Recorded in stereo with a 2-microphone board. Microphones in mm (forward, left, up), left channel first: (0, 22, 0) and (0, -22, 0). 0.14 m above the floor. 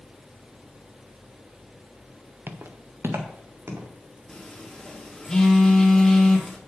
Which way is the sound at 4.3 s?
15° left (ahead or behind).